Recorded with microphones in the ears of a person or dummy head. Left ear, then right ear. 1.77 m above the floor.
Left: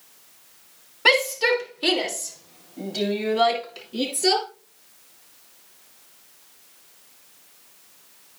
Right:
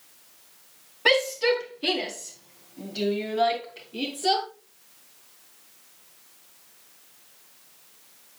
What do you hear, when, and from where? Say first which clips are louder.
1.1 s a shout: left 3 dB; 30° left (ahead or behind), 1.5 m; by 4.5 s 70° left (ahead or behind), 3 m